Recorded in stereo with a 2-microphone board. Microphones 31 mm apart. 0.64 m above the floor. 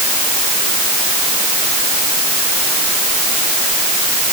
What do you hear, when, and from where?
Only background noise.